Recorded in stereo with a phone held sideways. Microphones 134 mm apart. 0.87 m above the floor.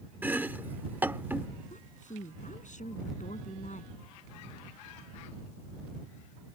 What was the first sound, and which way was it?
Chopping, 15° right (ahead or behind).